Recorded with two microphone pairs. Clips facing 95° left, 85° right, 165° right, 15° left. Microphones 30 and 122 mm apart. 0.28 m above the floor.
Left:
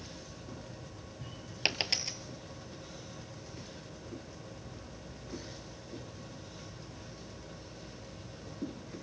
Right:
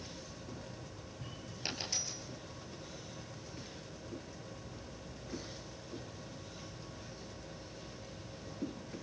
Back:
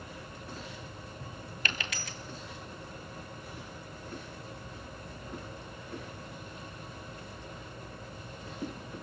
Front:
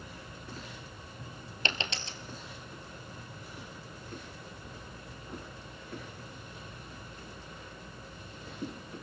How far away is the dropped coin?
About 1.1 m.